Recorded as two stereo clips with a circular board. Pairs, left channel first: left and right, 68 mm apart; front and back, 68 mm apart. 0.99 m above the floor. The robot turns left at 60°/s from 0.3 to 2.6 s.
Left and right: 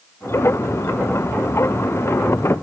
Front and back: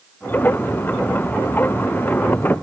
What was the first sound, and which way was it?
Only background noise.